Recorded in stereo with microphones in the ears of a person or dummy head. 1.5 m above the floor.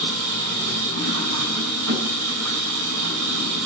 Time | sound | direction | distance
0.0 | an engine running | 85° right | 9 m